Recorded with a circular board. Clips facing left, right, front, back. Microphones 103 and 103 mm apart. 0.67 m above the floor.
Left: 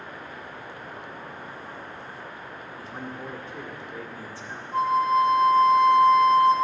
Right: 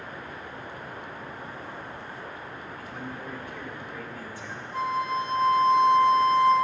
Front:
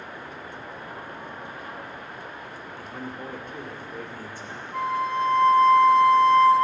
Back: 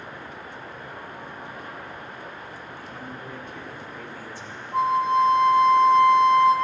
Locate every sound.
2.8 s a man speaking: 30° left, 1.7 m
4.7 s a flute: 120° left, 1.1 m